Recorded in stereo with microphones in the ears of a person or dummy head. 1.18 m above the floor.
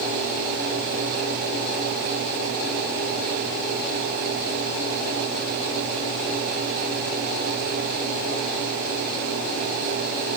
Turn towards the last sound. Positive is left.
No sound to turn to.